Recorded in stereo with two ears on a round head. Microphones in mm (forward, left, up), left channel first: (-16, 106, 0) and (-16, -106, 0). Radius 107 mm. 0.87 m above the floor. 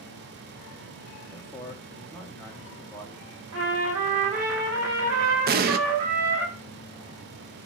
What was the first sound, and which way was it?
A man speaking, 10° left (ahead or behind).